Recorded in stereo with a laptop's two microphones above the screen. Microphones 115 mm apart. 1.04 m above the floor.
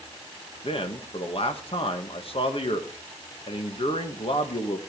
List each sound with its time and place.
0.6 s a man speaking: 55° left (ahead or behind), 1.3 m